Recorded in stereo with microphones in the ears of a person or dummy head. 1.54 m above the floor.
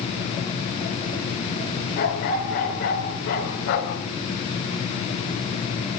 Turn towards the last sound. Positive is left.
turn(degrees=65)  # may be behind; listen again after turning